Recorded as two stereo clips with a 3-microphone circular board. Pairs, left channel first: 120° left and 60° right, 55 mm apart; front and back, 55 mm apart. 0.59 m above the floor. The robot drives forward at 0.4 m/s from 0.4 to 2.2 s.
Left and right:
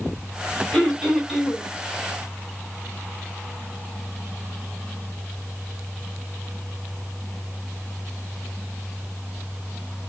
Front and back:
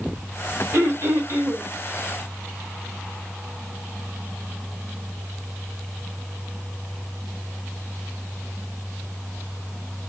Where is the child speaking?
I don't hear a child speaking.